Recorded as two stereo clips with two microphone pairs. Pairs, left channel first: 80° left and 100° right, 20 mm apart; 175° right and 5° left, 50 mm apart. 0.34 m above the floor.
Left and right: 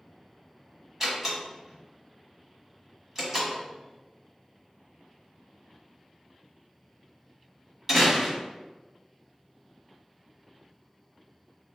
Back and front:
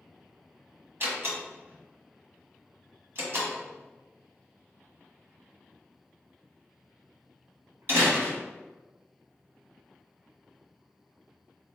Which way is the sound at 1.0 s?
30° right.